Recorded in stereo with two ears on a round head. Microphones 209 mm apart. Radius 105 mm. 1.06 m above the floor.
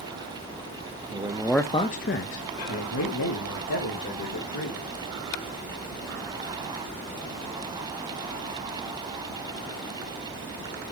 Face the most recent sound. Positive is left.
turn(degrees=75)  # may be behind; listen again after turning